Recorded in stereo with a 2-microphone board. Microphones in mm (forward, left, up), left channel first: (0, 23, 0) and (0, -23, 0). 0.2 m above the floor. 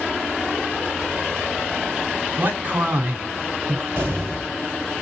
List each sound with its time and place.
2.4 s a man speaking: 40° right (ahead or behind), 2 m
4.0 s an explosion: 40° right (ahead or behind), 3.5 m